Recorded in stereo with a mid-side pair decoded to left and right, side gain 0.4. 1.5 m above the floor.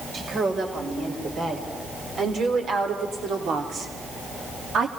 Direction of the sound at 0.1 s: 50° right.